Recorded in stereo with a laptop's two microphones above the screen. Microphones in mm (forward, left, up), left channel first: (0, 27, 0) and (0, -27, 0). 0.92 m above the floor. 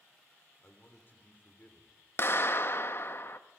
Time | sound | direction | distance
0.6 | a man speaking | 35° left (ahead or behind) | 3 m
2.2 | a clap | 45° left (ahead or behind) | 1.1 m